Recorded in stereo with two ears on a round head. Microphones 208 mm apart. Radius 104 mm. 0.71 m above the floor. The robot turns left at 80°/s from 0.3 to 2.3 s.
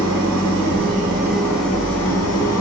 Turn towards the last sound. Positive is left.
turn(degrees=105)